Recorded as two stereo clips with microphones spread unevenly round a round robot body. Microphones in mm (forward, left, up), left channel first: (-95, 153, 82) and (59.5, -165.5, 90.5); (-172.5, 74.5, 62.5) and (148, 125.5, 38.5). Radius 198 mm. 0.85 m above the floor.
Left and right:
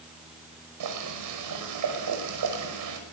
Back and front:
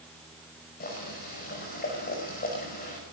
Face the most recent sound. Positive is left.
turn(degrees=-100)